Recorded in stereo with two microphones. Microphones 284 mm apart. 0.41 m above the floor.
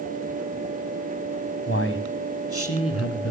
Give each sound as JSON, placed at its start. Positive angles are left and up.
{"t": 1.7, "sound": "a man speaking", "side_deg": 50, "distance_m": 1.9}